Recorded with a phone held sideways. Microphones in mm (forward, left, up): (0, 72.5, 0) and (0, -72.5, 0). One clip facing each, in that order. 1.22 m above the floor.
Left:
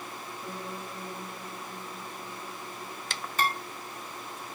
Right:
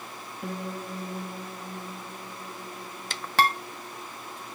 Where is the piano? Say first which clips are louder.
Right 6 dB; 55° right (ahead or behind), 1.5 m.